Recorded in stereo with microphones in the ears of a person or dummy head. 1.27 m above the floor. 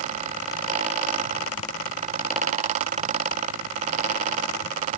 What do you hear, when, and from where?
Only background noise.